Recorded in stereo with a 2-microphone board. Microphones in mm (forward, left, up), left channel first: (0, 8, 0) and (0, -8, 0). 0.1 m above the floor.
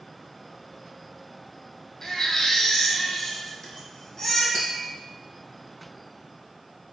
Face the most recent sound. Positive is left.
turn(degrees=45)  # may be behind; listen again after turning